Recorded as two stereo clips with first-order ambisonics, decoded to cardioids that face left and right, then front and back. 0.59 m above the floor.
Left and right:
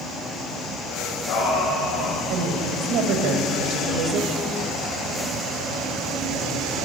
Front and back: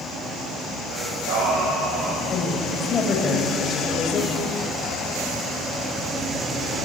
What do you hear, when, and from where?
0.9 s singing: 145° left, 8 m
2.3 s a woman speaking: 65° right, 3.5 m